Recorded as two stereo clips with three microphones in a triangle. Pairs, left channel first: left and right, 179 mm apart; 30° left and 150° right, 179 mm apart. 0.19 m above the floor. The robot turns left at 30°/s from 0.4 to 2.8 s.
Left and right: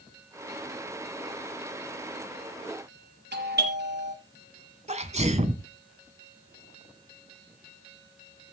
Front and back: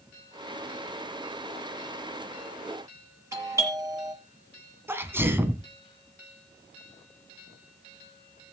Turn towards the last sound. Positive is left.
turn(degrees=-80)